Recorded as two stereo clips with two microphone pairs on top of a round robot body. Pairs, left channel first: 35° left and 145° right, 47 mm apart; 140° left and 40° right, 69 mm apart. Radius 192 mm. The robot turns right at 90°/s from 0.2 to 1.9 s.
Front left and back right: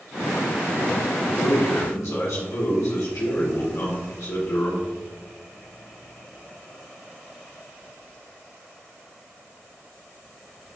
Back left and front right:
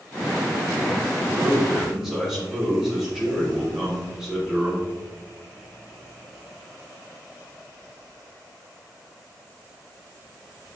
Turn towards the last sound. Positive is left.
turn(degrees=40)